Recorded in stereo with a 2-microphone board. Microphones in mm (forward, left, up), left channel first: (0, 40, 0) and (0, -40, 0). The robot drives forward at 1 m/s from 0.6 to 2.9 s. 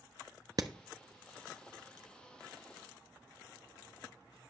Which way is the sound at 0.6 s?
50° right (ahead or behind).